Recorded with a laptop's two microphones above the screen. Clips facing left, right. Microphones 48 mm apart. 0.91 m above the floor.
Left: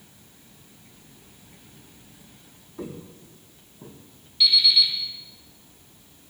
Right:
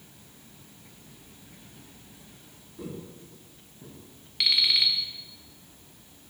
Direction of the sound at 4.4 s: 80° right.